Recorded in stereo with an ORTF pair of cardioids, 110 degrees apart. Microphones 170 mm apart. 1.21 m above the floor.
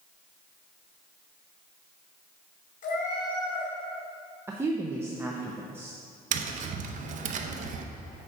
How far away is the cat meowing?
About 1.8 m.